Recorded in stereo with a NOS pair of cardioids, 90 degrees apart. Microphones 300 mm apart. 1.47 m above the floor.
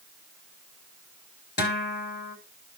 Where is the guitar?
35° left, 4 m.